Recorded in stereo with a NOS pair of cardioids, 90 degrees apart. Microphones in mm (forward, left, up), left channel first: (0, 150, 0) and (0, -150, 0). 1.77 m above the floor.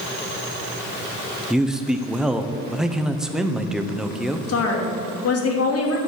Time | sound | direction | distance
1.5 | a man speaking | straight ahead | 1.1 m
4.5 | a woman speaking | 55° left | 2.5 m